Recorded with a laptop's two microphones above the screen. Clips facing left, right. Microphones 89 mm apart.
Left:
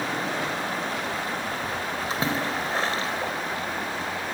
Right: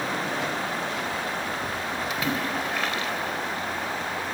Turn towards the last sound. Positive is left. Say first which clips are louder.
# left 2 dB
turn(degrees=35)  # may be behind; listen again after turning